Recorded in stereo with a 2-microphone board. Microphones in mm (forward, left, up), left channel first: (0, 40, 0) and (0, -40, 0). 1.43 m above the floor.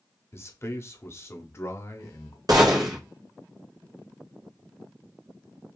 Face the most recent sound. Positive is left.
turn(degrees=-55)  # may be behind; listen again after turning